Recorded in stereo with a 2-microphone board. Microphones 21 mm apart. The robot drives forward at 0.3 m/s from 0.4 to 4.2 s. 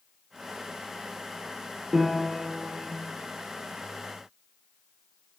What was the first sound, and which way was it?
A piano, 20° right (ahead or behind).